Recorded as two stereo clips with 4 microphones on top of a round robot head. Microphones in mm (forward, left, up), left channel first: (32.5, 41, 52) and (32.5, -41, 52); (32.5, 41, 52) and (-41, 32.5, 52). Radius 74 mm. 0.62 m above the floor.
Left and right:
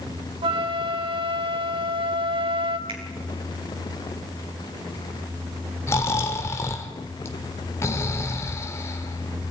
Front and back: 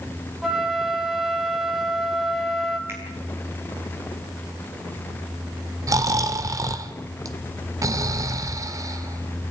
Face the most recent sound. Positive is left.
turn(degrees=150)